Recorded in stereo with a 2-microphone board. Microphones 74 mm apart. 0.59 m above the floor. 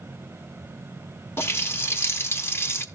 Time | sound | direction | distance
1.4 | a running tap | 35° left (ahead or behind) | 0.9 m